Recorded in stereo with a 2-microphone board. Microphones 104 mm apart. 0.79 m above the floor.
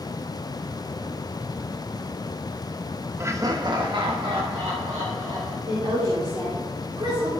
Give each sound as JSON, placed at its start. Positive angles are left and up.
{"t": 3.2, "sound": "laughter", "side_deg": -25, "distance_m": 0.7}
{"t": 5.7, "sound": "a woman speaking", "side_deg": -65, "distance_m": 2.5}